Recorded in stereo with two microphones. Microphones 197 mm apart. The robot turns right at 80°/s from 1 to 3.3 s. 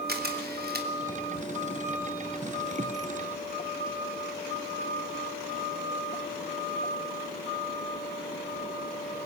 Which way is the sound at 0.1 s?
55° right (ahead or behind).